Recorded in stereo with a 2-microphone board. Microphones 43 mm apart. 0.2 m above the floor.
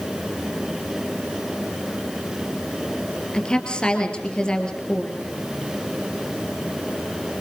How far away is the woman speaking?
About 3.5 m.